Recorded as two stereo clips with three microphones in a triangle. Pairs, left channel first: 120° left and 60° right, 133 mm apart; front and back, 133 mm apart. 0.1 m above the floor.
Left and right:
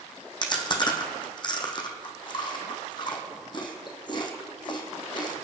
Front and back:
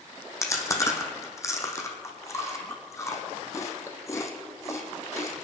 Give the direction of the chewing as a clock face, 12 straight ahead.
10 o'clock.